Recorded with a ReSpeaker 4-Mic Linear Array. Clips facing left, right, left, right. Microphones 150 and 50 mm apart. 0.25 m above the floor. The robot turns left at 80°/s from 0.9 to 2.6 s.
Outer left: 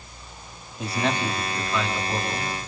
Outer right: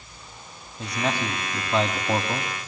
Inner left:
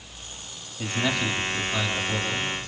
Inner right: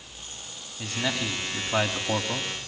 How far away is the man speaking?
About 2 m.